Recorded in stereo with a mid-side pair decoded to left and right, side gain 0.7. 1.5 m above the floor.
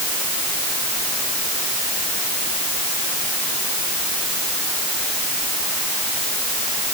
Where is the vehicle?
No vehicle in this recording.